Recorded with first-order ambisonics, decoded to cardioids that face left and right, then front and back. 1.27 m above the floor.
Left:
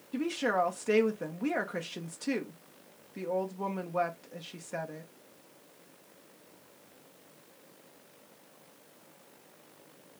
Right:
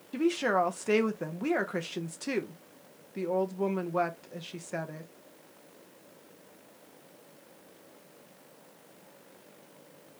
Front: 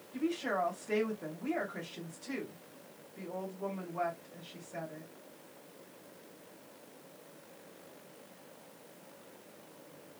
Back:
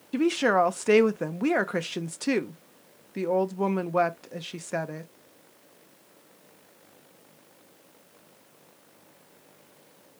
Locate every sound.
0.1 s a woman speaking: 170° right, 0.6 m